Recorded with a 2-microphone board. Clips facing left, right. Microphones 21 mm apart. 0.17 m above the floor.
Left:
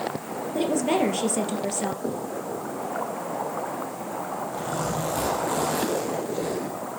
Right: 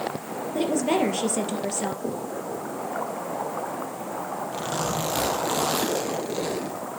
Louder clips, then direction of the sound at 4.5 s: Right 1 dB; 70° right (ahead or behind).